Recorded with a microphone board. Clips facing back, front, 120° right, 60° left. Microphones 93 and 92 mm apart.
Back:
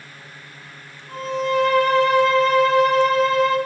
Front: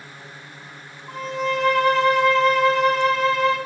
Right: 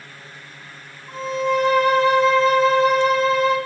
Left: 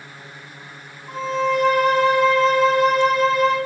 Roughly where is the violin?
Ahead.